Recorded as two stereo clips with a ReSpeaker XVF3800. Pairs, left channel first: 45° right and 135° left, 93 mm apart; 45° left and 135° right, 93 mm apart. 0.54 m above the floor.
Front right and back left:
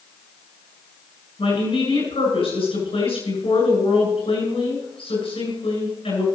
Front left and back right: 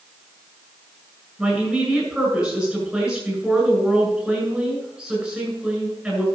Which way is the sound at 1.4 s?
50° right.